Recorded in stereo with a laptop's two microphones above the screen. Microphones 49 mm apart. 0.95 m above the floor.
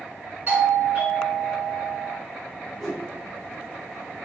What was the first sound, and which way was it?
A doorbell, 35° right (ahead or behind).